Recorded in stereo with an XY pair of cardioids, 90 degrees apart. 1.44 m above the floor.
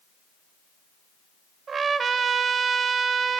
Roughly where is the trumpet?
Ahead right.